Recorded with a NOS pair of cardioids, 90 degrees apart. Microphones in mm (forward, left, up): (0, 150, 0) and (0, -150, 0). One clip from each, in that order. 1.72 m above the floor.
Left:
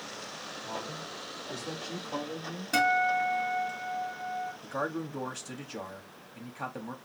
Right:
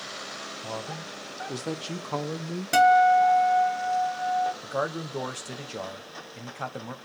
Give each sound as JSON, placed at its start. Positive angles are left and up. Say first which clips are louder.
{"t": 0.6, "sound": "a man speaking", "louder": "right 1 dB", "azimuth_deg": -40, "distance_m": 1.5}
{"t": 2.7, "sound": "a guitar", "louder": "right 8 dB", "azimuth_deg": -55, "distance_m": 2.0}
{"t": 4.6, "sound": "a man speaking", "louder": "right 4 dB", "azimuth_deg": -25, "distance_m": 1.2}